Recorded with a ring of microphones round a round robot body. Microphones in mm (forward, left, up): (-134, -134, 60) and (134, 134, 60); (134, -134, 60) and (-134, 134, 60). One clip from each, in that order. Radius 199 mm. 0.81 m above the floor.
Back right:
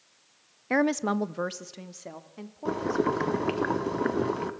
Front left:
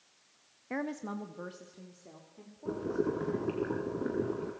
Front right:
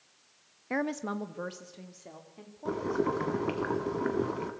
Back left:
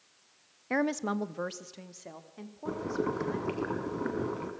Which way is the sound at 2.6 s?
125° right.